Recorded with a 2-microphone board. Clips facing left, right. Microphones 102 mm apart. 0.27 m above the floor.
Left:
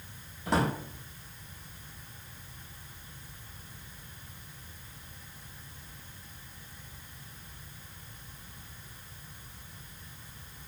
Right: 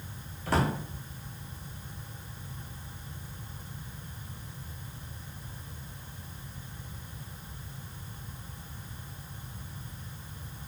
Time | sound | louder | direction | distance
0.5 | a drawer | even | 20° left (ahead or behind) | 1.2 m